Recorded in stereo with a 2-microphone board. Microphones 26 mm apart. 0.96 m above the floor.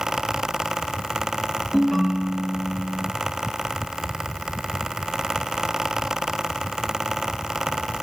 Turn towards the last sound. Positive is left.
turn(degrees=10)  # may be behind; listen again after turning